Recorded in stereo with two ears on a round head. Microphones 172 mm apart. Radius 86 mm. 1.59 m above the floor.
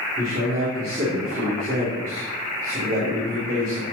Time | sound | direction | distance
0.2 | a man speaking | 45° right (ahead or behind) | 3.5 m